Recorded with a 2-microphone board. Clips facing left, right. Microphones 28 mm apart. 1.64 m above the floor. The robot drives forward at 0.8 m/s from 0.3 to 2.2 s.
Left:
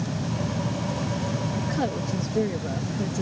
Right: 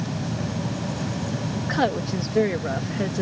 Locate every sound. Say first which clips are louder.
1.6 s a woman speaking: right 4 dB; 40° right (ahead or behind); by 3.2 s 50° right (ahead or behind)